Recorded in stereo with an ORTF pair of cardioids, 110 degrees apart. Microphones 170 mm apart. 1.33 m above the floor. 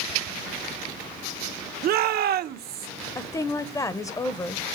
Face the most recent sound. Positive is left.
turn(degrees=20)